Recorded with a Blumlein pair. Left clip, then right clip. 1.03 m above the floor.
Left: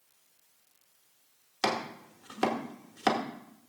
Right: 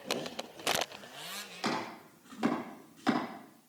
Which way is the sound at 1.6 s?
60° left.